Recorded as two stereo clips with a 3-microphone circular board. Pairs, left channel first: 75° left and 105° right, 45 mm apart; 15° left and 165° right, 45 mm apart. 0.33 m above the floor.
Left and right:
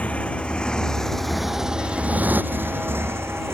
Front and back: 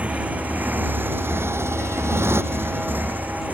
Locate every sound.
0.0 s a motorcycle: 135° left; by 3.5 s 115° right